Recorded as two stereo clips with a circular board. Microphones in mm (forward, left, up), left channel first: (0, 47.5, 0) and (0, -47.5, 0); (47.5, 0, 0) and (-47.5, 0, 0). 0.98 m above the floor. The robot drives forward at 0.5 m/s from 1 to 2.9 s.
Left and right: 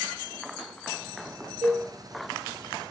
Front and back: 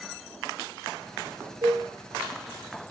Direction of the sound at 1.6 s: 150° right.